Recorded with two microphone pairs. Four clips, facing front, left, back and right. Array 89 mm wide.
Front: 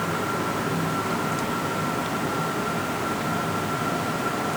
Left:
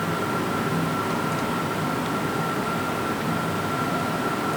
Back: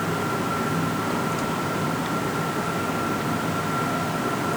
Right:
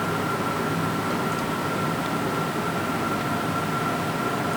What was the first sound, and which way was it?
Only background noise.